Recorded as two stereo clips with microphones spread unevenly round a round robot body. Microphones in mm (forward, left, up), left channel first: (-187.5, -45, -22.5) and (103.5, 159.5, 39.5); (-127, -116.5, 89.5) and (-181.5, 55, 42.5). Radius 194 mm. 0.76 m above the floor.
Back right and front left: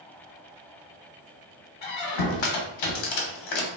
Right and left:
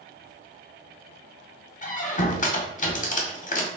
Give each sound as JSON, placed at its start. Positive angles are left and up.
{"t": 1.8, "sound": "a squeak", "azimuth_deg": -120, "distance_m": 1.0}